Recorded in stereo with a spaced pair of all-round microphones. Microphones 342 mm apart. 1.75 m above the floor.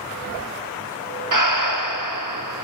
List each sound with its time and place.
1.3 s breathing: 65° right (ahead or behind), 0.7 m